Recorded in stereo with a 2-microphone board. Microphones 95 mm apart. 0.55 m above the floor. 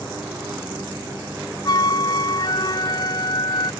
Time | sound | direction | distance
1.6 | a flute | 45° left (ahead or behind) | ?